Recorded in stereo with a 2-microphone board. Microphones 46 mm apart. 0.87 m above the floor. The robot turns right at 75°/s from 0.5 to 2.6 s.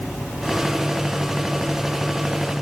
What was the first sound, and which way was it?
Only background noise.